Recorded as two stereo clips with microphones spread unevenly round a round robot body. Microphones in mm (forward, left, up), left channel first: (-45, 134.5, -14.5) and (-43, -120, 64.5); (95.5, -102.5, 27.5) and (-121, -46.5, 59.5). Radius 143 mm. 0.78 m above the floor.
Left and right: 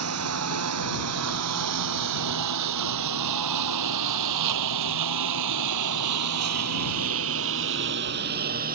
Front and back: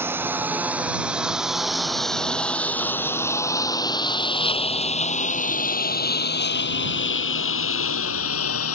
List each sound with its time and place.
0.0 s a lawn mower: 115° right; by 8.8 s 30° right